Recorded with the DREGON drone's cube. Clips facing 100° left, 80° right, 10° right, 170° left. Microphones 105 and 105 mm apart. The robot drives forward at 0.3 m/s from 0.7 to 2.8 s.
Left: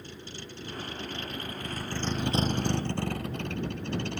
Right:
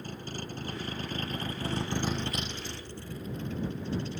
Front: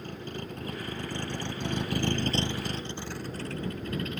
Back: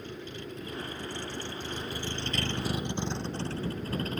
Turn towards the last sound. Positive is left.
turn(degrees=115)